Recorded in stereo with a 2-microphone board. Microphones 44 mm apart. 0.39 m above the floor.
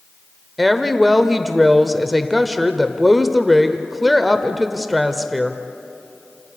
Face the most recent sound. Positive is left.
turn(degrees=-5)  # may be behind; listen again after turning